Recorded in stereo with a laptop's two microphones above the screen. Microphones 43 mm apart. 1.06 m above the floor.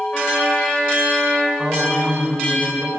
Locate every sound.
0.1 s a trumpet: 20° left (ahead or behind), 4.5 m
1.6 s a woman speaking: 10° right (ahead or behind), 4.5 m